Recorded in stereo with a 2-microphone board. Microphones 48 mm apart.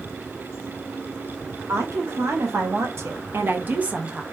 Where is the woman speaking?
80° right, 1.9 m; by 4.2 s 15° right (ahead or behind), 0.9 m.